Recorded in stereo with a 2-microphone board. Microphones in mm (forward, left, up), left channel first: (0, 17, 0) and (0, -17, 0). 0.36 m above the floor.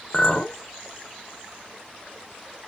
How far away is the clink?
About 0.5 m.